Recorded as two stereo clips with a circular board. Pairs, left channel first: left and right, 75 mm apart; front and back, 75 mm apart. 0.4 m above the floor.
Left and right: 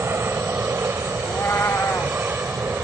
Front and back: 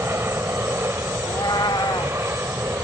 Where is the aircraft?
135° right; by 2.9 s 145° right.